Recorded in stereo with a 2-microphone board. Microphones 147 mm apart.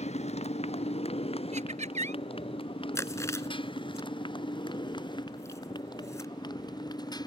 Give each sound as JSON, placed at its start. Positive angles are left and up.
{"t": 0.0, "sound": "a motorcycle", "side_deg": 50}
{"t": 1.5, "sound": "laughter", "side_deg": -55}
{"t": 3.0, "sound": "chewing", "side_deg": 20}